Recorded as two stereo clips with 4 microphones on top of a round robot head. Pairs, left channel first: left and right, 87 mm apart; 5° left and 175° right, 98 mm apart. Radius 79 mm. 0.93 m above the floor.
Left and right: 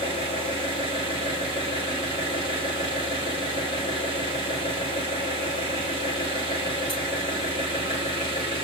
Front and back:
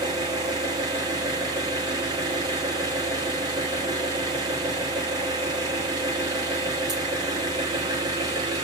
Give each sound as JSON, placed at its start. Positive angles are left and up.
{"t": 0.0, "sound": "an engine running", "azimuth_deg": 140, "distance_m": 3.0}